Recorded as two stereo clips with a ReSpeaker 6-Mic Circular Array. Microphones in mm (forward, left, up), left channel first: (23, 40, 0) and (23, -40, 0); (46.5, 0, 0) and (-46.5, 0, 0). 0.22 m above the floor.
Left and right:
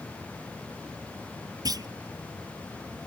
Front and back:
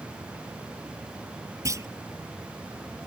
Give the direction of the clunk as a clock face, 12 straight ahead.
4 o'clock.